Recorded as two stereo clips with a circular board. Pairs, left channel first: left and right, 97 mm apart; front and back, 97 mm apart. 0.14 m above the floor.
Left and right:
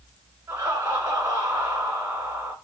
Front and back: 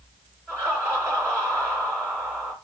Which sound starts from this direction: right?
Laughter, at 0.5 s.